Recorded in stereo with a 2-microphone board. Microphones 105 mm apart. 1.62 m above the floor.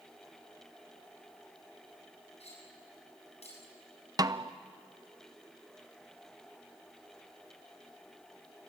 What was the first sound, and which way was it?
Cutlery clinking, 85° left.